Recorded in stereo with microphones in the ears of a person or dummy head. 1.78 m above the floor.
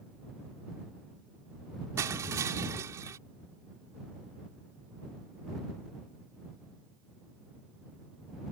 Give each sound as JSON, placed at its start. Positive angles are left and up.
{"t": 2.0, "sound": "crushing", "side_deg": -15}